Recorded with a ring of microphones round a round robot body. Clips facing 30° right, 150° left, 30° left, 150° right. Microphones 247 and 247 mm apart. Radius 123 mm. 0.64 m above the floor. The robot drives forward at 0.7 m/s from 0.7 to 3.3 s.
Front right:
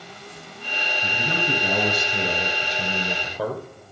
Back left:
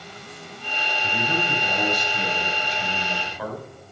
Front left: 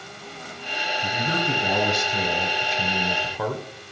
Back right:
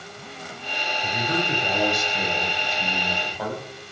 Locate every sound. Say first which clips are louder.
1.0 s a man speaking: back left 1 dB, back right 1 dB; 10° left, 3.5 m; by 3.6 s 20° left, 2 m